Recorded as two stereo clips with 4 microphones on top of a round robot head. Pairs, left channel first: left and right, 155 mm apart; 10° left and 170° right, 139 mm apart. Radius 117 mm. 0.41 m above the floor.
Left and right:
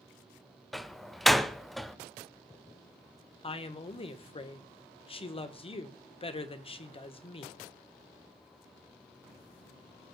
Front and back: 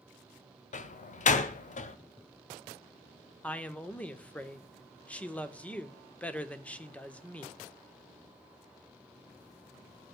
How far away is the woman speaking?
About 1.4 m.